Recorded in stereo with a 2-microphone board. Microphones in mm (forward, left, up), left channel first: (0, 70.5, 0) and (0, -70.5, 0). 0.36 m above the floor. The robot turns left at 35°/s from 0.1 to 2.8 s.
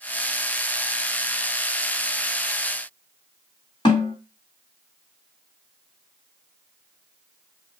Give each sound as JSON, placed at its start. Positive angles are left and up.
{"t": 3.9, "sound": "a snare drum", "side_deg": 35, "distance_m": 2.5}